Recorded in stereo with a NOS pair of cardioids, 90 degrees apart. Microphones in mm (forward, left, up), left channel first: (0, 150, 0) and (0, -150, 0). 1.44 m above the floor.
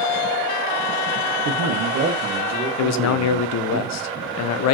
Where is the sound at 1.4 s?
65° right, 0.8 m; by 3.8 s 35° right, 2.0 m.